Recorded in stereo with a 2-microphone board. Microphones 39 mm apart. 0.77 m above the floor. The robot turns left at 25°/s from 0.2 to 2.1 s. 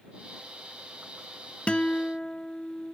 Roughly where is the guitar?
Left.